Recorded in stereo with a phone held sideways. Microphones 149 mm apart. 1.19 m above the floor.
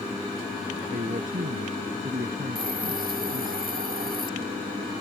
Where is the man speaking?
70° right (ahead or behind).